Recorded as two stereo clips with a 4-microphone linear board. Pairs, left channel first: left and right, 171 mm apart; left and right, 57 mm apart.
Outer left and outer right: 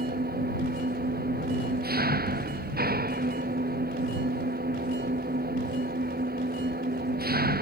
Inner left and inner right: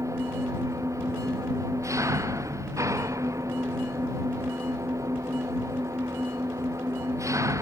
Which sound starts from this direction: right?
An engine running, at 0.0 s.